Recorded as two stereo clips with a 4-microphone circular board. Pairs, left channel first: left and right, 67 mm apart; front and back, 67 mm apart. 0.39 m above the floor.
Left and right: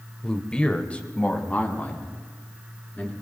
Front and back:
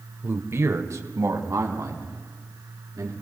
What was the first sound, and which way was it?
A man speaking, 165° left.